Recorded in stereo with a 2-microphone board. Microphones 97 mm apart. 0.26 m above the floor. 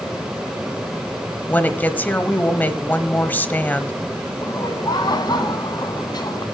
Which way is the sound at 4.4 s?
45° left (ahead or behind).